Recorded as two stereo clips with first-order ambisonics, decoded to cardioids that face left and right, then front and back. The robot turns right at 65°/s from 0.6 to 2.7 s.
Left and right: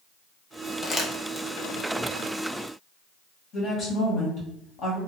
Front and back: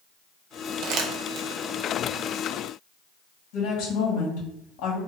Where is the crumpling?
160° left, 0.5 m; by 1.5 s 160° right, 0.5 m.